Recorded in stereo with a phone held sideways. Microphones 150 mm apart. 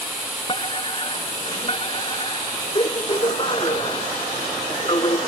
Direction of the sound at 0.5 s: 35° left (ahead or behind).